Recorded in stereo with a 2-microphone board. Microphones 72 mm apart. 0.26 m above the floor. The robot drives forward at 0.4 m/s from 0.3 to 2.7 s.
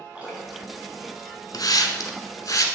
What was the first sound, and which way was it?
Dripping, 20° right (ahead or behind).